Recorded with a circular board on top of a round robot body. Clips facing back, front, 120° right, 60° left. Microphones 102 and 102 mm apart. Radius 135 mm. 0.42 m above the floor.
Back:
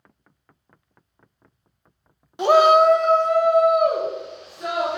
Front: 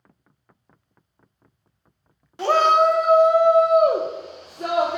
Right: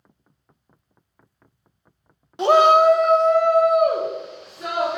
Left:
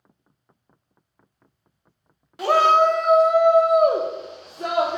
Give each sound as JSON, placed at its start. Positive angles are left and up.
{"t": 2.4, "sound": "a shout", "azimuth_deg": -135, "distance_m": 0.8}